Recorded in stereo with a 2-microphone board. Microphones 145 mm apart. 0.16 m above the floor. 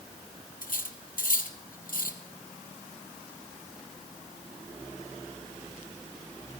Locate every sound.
0.6 s cutlery clinking: 75° left (ahead or behind), 2.5 m